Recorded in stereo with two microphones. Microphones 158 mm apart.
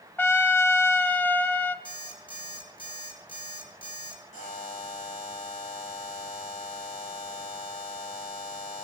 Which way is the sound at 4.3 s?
50° left (ahead or behind).